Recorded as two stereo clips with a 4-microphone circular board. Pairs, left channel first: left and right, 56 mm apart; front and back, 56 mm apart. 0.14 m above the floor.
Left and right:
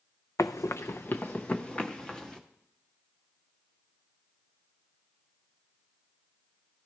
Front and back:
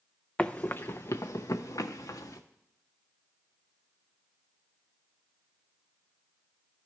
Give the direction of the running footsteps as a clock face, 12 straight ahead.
10 o'clock.